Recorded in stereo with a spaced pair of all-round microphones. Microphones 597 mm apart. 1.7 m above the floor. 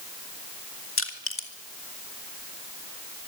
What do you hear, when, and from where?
1.0 s crushing: 20° left (ahead or behind), 2 m